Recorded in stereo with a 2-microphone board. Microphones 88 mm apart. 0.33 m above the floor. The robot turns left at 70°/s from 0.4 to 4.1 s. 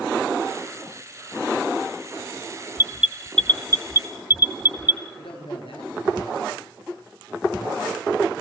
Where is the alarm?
30° right (ahead or behind), 1.2 m; by 5.0 s 50° left (ahead or behind), 1.2 m.